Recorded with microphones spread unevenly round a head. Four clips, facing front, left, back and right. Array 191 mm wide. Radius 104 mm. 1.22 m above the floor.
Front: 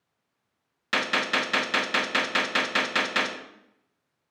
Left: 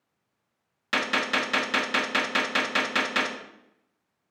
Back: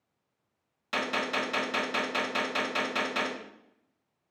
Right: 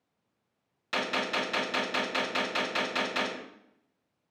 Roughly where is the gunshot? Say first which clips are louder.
Left 4 dB, front 4 dB; ahead left.